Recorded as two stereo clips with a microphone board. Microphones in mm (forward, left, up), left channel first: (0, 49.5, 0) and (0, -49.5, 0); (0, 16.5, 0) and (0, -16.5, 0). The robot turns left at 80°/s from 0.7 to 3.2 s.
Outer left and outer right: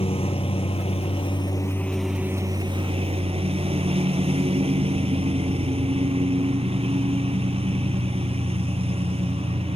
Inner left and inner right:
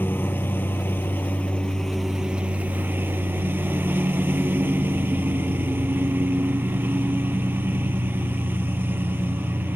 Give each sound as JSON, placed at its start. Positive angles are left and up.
{"t": 0.0, "sound": "a lawn mower", "azimuth_deg": 105}